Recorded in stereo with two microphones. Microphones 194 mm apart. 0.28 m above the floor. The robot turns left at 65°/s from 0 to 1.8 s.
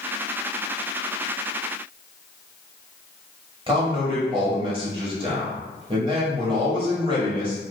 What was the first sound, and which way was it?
A man speaking, 30° right (ahead or behind).